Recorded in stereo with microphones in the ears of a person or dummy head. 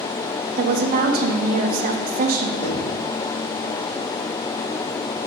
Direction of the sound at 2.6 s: 40° left (ahead or behind).